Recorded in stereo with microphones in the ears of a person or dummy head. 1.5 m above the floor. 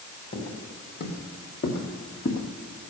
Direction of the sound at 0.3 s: 45° left (ahead or behind).